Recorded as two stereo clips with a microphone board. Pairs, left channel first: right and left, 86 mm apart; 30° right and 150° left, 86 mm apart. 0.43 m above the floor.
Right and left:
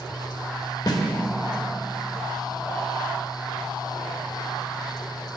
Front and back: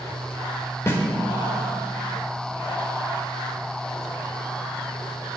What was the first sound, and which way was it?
A snare drum, 80° right.